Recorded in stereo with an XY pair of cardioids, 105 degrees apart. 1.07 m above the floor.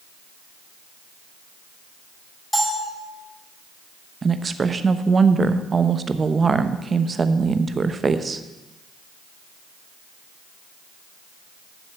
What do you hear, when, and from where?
2.5 s a bell: 5° left, 4.5 m
4.2 s a woman speaking: 30° right, 0.8 m